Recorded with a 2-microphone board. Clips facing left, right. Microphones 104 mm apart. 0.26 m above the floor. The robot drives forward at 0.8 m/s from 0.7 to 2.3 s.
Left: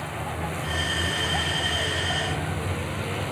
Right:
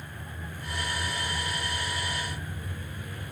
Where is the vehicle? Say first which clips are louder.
Left 11 dB; 85° left.